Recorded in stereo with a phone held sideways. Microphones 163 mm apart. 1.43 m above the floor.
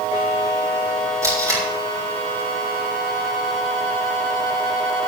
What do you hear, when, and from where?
1.2 s tape being pulled: 20° right (ahead or behind), 4.5 m